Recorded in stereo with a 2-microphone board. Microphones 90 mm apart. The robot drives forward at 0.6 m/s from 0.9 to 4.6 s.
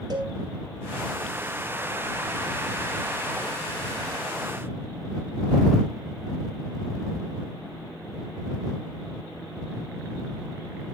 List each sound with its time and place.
0.1 s a cowbell: 50° right (ahead or behind), 3.5 m